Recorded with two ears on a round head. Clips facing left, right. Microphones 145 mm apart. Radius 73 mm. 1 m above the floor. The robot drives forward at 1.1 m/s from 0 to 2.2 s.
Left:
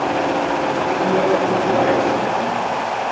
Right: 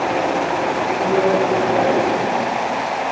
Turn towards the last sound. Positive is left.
turn(degrees=10)  # may be behind; listen again after turning